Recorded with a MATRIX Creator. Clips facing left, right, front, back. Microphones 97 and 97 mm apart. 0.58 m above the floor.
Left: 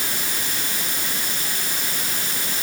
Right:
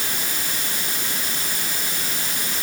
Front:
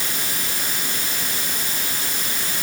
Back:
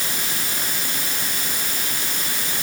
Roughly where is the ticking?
No ticking in this recording.